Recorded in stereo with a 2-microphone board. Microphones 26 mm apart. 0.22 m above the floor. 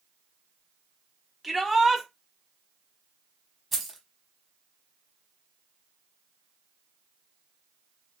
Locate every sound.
1.4 s a shout: centre (ahead or behind), 1.1 m
3.7 s keys jangling: 5° left (ahead or behind), 0.9 m